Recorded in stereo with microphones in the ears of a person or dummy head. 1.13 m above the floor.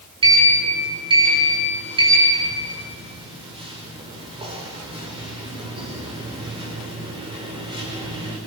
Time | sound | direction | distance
0.2 | a sliding door | 25° right (ahead or behind) | 5 m